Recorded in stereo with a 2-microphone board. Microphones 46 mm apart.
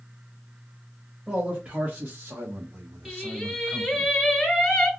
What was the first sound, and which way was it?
A man speaking, 20° right (ahead or behind).